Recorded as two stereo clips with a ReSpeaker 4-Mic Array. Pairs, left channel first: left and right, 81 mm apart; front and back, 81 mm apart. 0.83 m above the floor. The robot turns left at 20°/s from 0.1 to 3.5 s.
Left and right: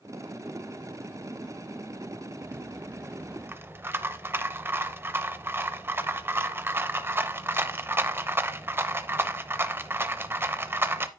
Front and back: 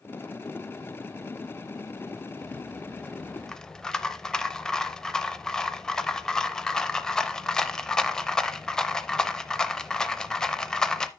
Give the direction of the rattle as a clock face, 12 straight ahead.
2 o'clock.